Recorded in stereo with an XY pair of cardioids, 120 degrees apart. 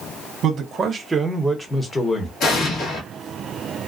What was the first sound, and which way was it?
A man speaking, 55° right.